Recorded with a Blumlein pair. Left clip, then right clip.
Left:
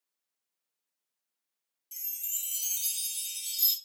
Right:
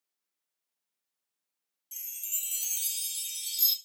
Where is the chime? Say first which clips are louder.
Right 1 dB; 5° right, 0.7 m.